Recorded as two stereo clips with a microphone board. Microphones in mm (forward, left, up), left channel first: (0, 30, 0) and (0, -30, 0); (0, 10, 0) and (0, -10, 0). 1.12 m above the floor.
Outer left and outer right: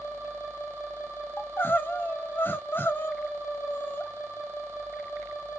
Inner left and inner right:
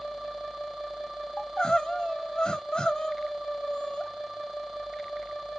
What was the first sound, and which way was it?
Crying, 35° left (ahead or behind).